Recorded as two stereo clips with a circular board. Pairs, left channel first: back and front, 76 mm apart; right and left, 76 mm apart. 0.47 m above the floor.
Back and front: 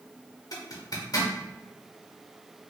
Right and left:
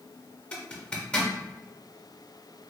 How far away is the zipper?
About 0.7 m.